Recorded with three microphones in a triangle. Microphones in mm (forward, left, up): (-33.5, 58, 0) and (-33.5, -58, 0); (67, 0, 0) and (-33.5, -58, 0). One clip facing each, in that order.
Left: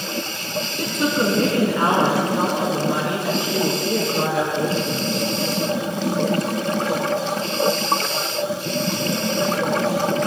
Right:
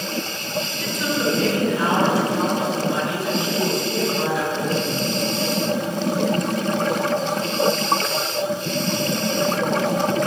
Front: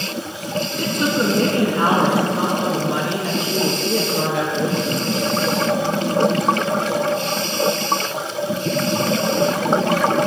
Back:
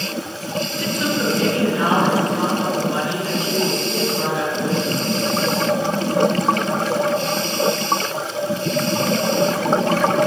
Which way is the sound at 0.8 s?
65° left.